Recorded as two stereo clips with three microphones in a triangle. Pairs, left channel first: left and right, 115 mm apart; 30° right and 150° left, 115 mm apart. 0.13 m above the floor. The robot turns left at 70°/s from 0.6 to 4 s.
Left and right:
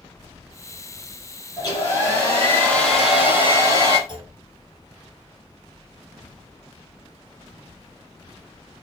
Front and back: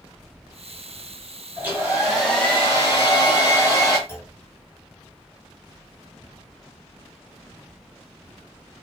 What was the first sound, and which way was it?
A hair dryer, 95° left.